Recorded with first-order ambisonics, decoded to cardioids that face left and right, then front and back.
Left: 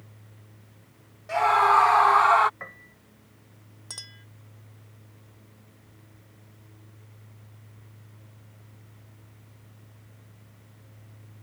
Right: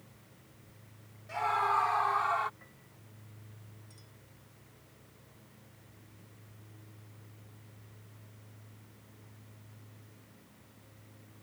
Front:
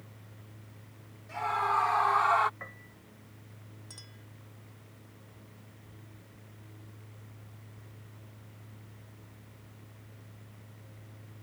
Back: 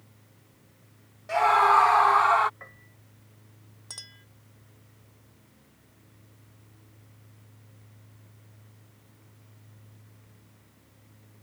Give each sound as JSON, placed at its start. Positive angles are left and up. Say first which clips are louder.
{"t": 1.3, "sound": "a scream", "louder": "left 10 dB, back 10 dB", "azimuth_deg": 140}
{"t": 2.6, "sound": "a piano", "louder": "left 16 dB, front 2 dB", "azimuth_deg": 80}
{"t": 3.9, "sound": "a clink", "louder": "left 18 dB, back 9 dB", "azimuth_deg": 115}